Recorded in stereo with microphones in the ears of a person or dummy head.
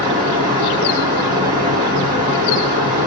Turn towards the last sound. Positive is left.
turn(degrees=-20)  # may be behind; listen again after turning